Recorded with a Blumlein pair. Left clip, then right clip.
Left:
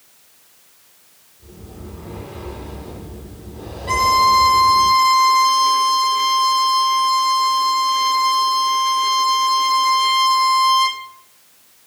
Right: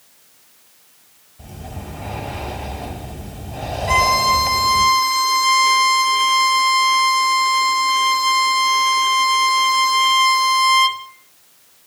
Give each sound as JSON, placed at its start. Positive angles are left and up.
{"t": 1.4, "sound": "breathing", "azimuth_deg": -45, "distance_m": 2.0}
{"t": 3.9, "sound": "a violin", "azimuth_deg": -10, "distance_m": 1.2}